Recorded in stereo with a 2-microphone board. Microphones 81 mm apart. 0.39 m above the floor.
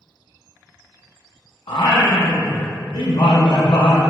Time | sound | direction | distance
1.7 | singing | 80° left | 0.6 m